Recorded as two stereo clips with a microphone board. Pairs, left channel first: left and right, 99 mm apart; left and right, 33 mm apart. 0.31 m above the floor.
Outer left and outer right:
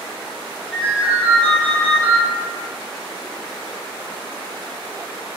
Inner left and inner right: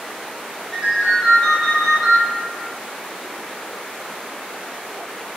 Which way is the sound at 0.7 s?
Centre (ahead or behind).